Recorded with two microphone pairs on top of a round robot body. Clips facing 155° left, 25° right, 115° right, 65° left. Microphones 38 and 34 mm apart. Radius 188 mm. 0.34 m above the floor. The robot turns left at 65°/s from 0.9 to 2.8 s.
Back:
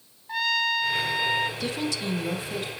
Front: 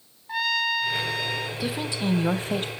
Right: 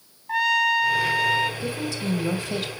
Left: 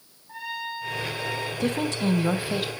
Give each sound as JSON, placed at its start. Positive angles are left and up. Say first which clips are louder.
{"t": 0.3, "sound": "a trumpet", "louder": "even, right 13 dB", "azimuth_deg": -110, "distance_m": 1.2}
{"t": 1.6, "sound": "a woman speaking", "louder": "front 1 dB, left 3 dB", "azimuth_deg": 50, "distance_m": 3.0}